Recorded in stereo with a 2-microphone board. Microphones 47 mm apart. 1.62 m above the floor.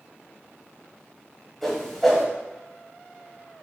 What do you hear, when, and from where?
1.6 s a whoosh: centre (ahead or behind), 3.5 m